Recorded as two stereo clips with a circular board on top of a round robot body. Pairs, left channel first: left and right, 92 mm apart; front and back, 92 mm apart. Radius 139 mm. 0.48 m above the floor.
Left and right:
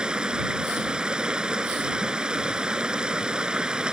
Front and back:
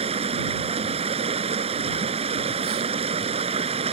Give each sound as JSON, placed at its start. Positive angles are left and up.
{"t": 0.0, "sound": "running water", "azimuth_deg": -170}